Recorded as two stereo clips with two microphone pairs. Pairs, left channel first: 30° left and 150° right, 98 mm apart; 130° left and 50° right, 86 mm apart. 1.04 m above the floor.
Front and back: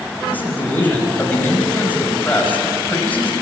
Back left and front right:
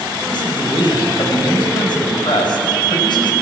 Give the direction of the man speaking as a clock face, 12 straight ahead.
9 o'clock.